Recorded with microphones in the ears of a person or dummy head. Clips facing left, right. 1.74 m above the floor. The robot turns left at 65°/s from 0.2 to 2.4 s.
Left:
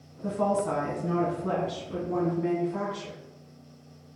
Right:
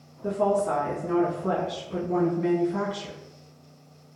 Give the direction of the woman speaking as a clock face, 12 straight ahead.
8 o'clock.